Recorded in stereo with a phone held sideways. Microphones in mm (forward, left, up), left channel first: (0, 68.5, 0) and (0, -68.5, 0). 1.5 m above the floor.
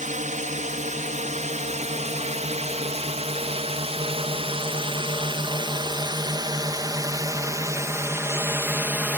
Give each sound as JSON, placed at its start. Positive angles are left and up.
{"t": 0.0, "sound": "a drone", "side_deg": -65}